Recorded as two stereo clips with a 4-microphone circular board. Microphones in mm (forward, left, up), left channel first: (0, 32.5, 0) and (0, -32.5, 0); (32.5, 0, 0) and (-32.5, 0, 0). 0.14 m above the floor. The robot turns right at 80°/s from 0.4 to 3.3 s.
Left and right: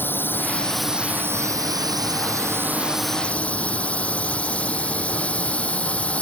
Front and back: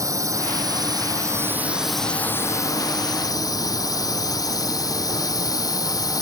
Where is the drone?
150° left; by 6.2 s 20° left.